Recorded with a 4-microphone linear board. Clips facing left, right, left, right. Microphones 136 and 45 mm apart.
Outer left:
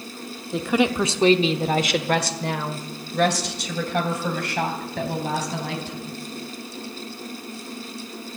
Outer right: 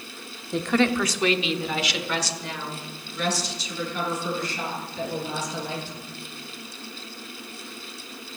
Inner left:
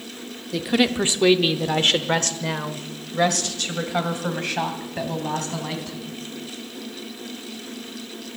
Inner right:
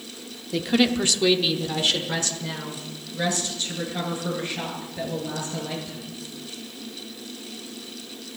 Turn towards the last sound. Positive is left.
turn(degrees=75)  # may be behind; listen again after turning